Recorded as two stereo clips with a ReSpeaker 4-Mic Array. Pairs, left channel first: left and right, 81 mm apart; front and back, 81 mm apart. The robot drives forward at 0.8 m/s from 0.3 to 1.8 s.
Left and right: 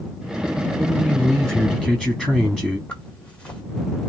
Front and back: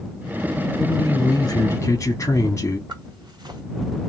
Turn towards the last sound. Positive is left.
turn(degrees=165)